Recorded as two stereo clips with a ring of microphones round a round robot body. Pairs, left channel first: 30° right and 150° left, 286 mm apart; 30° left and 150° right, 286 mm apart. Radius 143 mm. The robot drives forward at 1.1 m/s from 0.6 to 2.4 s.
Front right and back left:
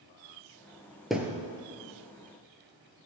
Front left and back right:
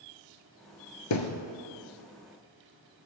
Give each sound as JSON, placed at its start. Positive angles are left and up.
{"t": 1.1, "sound": "a thud", "azimuth_deg": 60, "distance_m": 1.2}